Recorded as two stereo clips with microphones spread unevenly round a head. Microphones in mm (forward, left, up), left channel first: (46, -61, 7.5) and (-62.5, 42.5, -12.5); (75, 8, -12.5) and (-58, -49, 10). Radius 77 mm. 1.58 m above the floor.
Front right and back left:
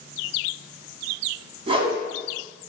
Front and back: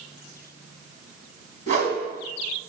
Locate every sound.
1.7 s a whoosh: 170° right, 2.5 m